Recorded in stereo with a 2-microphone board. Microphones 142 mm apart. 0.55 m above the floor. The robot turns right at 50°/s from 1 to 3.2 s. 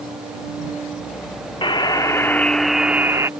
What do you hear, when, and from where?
1.6 s a buzzer: 125° left; by 3.3 s 155° right